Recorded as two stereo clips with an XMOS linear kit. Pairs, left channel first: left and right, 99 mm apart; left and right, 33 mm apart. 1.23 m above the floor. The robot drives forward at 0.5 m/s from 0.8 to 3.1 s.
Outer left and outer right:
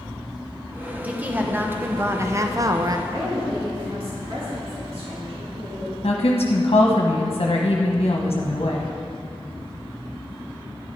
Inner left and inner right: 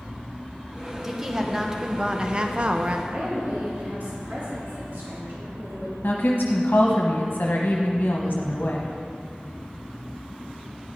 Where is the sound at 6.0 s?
75° left (ahead or behind), 1.1 m.